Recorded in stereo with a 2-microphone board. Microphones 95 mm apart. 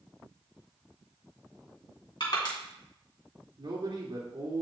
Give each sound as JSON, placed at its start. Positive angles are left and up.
{"t": 2.2, "sound": "crushing", "side_deg": 55, "distance_m": 2.5}
{"t": 3.6, "sound": "a man speaking", "side_deg": -55, "distance_m": 2.0}